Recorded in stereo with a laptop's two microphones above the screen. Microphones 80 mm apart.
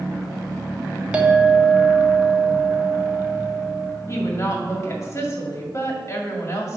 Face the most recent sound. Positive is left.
turn(degrees=35)  # may be behind; listen again after turning